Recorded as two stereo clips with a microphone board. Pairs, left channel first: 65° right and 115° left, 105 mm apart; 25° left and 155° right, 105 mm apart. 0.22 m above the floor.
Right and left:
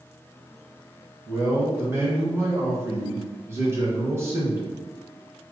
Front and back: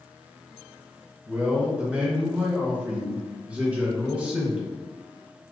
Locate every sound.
1.3 s a man speaking: 140° left, 1.2 m